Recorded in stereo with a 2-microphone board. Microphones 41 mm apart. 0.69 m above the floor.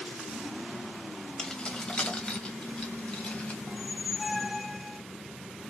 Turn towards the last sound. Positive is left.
turn(degrees=-5)  # may be behind; listen again after turning